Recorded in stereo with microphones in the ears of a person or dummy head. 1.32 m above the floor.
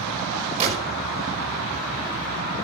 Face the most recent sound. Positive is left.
turn(degrees=-35)  # may be behind; listen again after turning